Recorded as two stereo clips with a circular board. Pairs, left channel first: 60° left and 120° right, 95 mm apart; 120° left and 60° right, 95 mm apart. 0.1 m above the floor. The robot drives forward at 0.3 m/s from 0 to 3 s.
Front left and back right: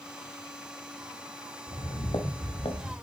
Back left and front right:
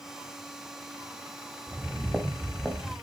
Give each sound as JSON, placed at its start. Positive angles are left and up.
{"t": 1.7, "sound": "footsteps", "azimuth_deg": 25, "distance_m": 1.1}